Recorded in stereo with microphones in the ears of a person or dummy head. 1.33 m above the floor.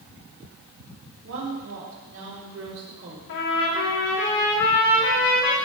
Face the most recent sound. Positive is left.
turn(degrees=60)  # may be behind; listen again after turning